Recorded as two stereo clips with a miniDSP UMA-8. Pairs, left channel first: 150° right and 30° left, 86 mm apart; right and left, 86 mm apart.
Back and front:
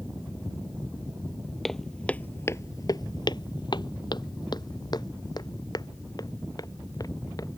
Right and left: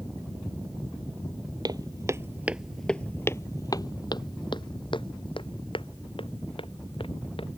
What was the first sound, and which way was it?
Footsteps, 120° left.